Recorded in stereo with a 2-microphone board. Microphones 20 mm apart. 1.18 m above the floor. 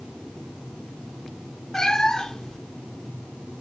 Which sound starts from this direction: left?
A cat meowing, at 1.7 s.